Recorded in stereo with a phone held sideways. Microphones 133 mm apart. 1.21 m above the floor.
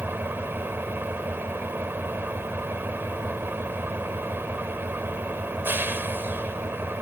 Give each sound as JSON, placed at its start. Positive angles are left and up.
{"t": 0.0, "sound": "an engine running", "side_deg": -15}